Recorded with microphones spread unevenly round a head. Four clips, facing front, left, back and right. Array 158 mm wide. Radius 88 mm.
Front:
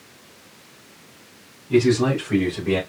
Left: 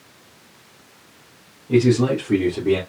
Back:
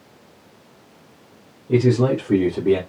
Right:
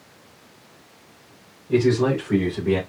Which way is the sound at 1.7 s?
165° left.